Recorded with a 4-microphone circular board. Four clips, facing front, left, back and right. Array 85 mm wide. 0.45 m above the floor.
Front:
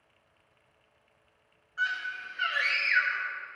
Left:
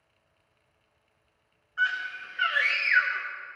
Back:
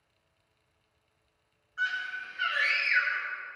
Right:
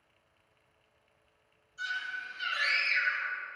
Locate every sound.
1.8 s a scream: 85° left, 4.5 m